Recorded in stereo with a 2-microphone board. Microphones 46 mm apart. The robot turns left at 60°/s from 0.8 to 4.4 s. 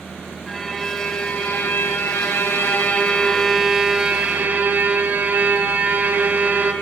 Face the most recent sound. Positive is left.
turn(degrees=-50)